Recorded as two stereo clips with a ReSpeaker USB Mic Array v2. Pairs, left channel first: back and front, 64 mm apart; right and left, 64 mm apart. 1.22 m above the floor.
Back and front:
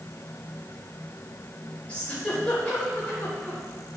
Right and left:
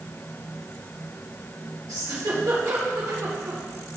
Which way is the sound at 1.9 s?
110° left.